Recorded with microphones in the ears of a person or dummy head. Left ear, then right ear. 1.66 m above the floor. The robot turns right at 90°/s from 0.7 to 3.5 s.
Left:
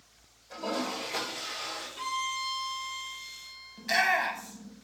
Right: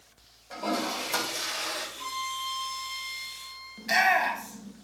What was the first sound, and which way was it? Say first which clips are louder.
A toilet flushing: right 3 dB; 170° right.